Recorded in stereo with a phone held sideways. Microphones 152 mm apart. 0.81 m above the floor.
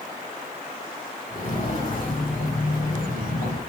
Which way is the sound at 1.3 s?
50° left (ahead or behind).